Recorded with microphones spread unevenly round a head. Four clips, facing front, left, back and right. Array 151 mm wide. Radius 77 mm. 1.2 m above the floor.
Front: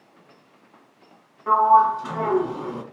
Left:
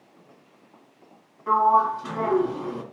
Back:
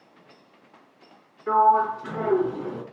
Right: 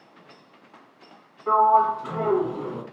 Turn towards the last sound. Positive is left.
turn(degrees=-5)